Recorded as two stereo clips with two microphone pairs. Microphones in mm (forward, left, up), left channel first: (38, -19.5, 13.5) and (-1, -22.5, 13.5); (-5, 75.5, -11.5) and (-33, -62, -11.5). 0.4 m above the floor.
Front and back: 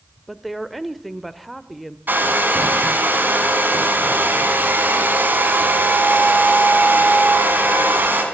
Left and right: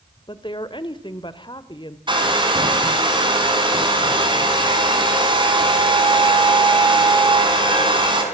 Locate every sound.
0.3 s a woman speaking: 90° left, 1.2 m
2.1 s a hair dryer: 150° right, 4 m